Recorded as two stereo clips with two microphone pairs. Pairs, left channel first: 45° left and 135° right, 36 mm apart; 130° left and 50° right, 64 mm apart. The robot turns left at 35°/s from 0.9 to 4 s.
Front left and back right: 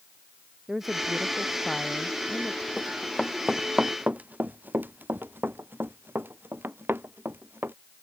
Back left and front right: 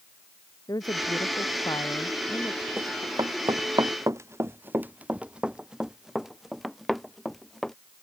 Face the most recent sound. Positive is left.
turn(degrees=-145)